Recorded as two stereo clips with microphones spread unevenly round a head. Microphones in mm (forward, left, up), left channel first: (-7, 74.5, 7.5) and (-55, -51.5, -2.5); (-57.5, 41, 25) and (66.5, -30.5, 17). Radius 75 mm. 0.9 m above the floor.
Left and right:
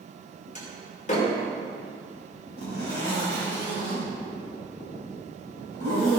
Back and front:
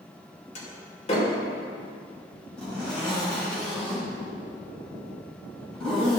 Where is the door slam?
100° left, 2.5 m.